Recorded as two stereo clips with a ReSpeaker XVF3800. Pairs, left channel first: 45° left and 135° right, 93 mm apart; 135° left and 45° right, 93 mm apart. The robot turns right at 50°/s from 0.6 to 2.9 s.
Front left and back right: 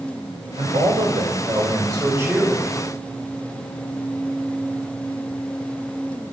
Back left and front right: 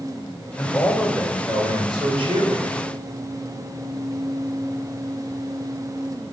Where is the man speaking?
145° right, 5 m; by 2.8 s 35° right, 5 m.